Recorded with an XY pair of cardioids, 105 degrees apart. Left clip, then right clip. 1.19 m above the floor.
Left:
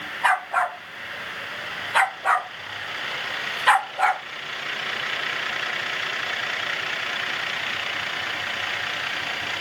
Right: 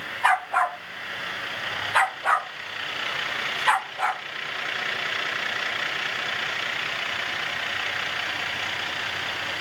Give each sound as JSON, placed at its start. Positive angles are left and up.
{"t": 0.2, "sound": "a dog barking", "azimuth_deg": 0, "distance_m": 3.0}